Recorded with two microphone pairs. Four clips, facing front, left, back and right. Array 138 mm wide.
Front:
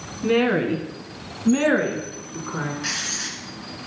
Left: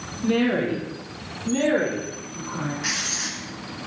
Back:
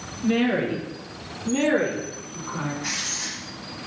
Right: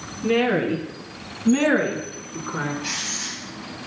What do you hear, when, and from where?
0.2 s a woman speaking: 5° left, 2.0 m; by 2.7 s 50° right, 2.5 m
2.8 s writing: 45° left, 2.5 m